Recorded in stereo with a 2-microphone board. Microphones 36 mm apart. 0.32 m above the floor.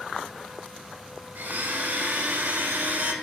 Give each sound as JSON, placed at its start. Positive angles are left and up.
{"t": 1.4, "sound": "a blender", "side_deg": -55, "distance_m": 0.9}